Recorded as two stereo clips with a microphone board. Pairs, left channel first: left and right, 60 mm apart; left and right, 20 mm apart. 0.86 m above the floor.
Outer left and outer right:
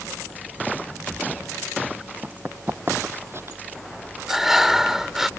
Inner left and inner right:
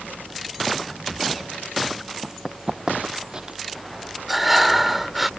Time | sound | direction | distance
2.2 | running footsteps | 30° right (ahead or behind) | ?
4.3 | breathing | 5° right (ahead or behind) | ?